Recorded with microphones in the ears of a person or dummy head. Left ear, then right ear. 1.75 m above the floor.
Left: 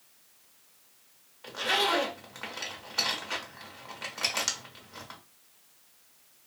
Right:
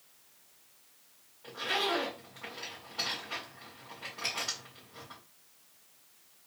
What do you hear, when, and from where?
1.4 s a zipper: 65° left (ahead or behind), 1.0 m